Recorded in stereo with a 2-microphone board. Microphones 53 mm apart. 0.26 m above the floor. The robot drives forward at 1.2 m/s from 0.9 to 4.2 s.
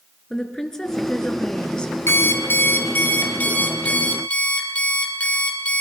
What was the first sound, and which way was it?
A woman speaking, 10° left (ahead or behind).